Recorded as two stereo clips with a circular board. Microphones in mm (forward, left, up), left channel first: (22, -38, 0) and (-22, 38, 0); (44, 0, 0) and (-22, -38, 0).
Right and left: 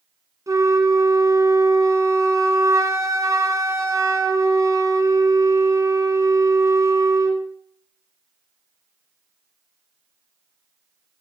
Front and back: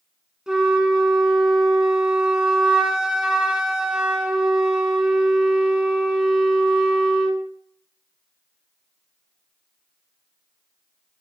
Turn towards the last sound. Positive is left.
turn(degrees=135)